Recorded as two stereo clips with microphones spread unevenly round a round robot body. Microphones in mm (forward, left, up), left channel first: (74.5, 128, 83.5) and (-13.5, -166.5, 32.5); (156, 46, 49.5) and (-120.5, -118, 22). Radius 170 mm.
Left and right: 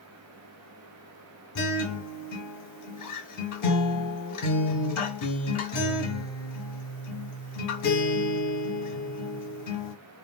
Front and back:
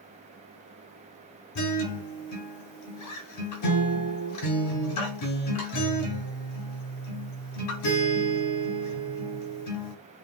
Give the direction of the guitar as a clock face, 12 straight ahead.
10 o'clock.